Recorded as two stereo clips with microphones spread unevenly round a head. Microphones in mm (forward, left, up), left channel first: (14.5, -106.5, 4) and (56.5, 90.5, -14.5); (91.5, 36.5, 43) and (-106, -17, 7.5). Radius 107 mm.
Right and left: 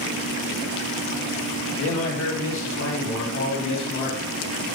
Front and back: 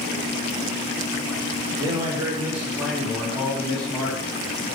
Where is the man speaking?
95° right, 2.0 m; by 4.3 s 65° right, 3.5 m.